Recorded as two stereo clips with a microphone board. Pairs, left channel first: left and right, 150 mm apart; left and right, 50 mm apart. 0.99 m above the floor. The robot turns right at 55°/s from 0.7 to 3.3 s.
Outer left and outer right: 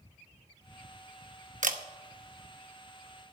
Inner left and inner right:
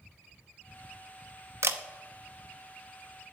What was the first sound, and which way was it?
A camera shutter, 60° right (ahead or behind).